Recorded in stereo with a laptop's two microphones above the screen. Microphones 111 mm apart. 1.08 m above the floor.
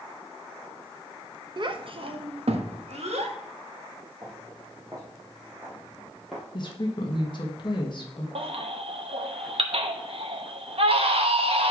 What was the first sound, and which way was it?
A child speaking, 45° right (ahead or behind).